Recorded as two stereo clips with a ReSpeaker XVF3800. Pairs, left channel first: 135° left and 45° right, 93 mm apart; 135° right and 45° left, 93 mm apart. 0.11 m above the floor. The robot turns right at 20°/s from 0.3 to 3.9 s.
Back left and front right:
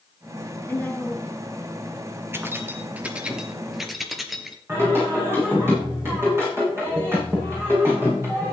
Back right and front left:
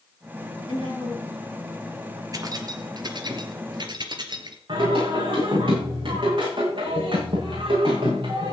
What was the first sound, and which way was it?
A woman speaking, 155° right.